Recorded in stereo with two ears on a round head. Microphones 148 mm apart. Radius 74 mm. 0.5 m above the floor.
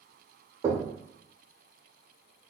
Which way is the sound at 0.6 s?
25° right (ahead or behind).